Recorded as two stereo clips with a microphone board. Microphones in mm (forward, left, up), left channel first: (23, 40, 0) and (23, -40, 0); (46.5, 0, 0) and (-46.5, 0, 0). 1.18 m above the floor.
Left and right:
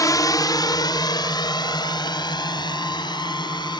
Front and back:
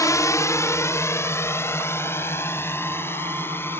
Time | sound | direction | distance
0.0 | a drone | 50° left | ?